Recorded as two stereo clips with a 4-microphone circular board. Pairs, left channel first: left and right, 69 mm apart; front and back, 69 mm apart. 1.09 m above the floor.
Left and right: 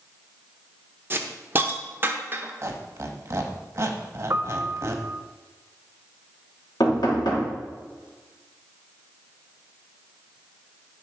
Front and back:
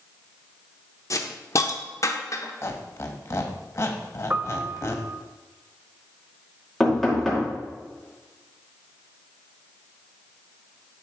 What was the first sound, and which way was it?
A hiss, 35° right.